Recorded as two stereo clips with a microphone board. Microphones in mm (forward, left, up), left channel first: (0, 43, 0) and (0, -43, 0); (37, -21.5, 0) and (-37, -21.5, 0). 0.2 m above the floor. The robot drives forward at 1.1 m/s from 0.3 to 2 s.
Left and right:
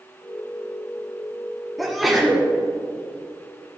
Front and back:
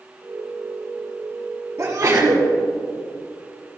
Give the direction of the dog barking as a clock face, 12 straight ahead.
I don't hear a dog barking.